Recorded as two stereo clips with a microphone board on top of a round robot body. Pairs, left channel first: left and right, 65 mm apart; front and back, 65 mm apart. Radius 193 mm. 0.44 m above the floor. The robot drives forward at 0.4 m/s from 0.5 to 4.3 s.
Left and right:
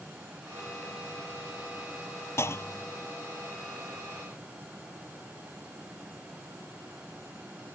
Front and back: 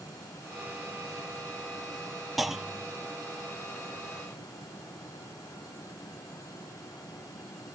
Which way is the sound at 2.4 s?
90° left.